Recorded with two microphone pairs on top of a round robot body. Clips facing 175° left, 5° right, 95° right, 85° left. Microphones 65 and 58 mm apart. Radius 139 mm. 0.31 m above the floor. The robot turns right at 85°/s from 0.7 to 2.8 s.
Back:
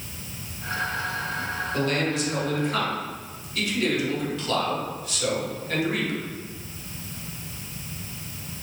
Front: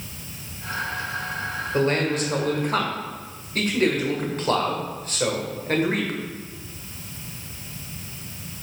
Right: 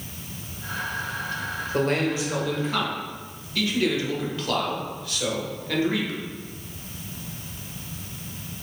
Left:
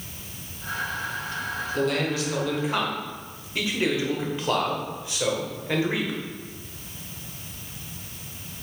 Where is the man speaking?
70° right, 1.7 m; by 6.2 s 20° left, 1.7 m.